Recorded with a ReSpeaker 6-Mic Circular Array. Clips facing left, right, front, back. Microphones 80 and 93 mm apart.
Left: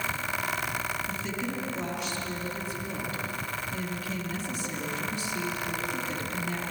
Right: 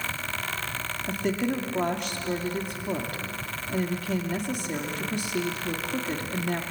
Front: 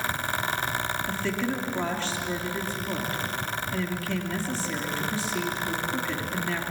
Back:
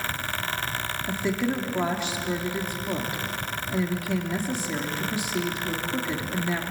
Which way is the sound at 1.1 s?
110° right.